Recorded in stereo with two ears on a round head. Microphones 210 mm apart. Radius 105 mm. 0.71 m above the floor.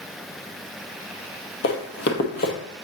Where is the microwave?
I don't hear a microwave.